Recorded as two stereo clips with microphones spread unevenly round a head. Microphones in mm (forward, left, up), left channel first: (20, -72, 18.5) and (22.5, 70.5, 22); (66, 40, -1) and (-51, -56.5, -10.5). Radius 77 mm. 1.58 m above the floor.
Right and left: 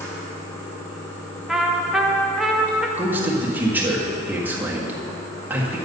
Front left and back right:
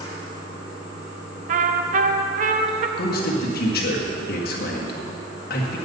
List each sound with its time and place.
0.0 s running water: 20° right, 2.5 m
1.5 s a trumpet: 175° left, 0.7 m
3.0 s a man speaking: 10° left, 1.7 m